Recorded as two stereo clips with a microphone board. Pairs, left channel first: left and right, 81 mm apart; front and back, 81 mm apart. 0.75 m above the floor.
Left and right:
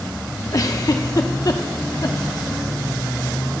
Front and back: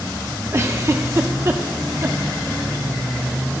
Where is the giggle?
130° left, 0.9 m.